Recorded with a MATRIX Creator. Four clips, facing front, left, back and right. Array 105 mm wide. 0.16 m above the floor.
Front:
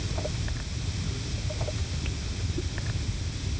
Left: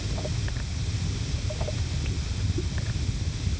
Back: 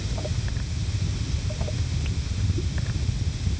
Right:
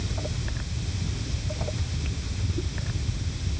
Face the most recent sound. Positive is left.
No sound to turn to.